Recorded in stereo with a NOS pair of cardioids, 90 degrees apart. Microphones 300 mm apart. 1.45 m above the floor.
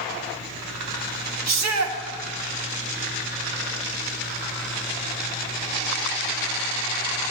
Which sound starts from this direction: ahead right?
A shout, at 1.5 s.